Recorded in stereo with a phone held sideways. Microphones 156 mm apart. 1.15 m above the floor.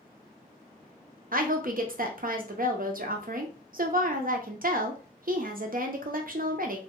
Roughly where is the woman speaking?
Right.